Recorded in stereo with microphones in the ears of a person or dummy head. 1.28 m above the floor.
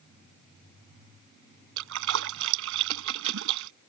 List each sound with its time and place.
1.8 s a splash: 70° right (ahead or behind)